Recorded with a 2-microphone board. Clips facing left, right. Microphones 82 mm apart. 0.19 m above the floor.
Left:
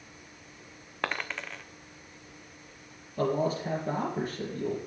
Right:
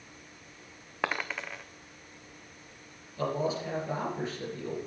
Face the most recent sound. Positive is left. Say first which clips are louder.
# left 3 dB
turn(degrees=50)  # may be behind; listen again after turning